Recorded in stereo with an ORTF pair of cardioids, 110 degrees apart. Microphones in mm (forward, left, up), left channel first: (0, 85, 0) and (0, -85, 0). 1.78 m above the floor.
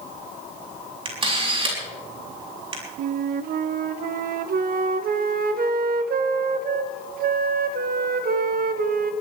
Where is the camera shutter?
35° right, 5.5 m.